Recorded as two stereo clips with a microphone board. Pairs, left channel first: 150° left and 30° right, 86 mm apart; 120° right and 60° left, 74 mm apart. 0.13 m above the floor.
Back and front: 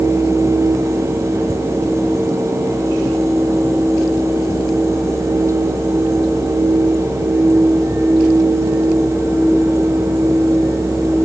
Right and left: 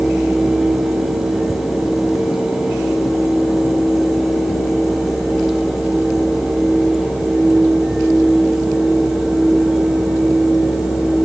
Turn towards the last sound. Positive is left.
No sound to turn to.